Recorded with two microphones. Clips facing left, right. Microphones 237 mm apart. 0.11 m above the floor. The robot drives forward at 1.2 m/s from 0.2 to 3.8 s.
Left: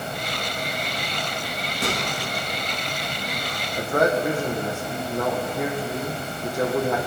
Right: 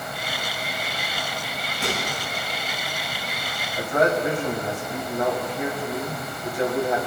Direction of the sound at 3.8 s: 50° left (ahead or behind).